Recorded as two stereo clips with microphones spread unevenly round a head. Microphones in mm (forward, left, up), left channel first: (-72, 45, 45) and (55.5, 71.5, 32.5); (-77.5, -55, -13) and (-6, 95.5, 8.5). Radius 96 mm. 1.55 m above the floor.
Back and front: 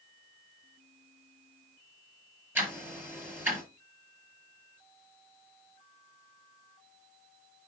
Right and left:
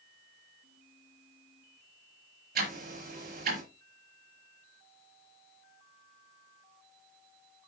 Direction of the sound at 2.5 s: 90° left.